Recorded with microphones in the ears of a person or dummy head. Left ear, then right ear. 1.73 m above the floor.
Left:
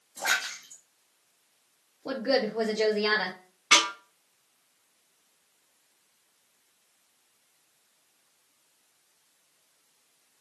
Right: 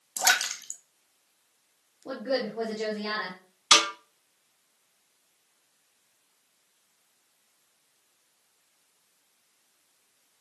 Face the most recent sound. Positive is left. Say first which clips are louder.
# right 1 dB
turn(degrees=-35)  # may be behind; listen again after turning